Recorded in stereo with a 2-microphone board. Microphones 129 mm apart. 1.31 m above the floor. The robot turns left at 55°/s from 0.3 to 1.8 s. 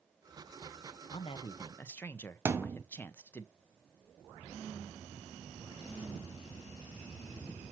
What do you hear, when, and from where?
1.1 s a man speaking: 55° left, 0.7 m; by 3.5 s 15° left, 0.7 m
2.5 s a thud: 20° right (ahead or behind), 0.7 m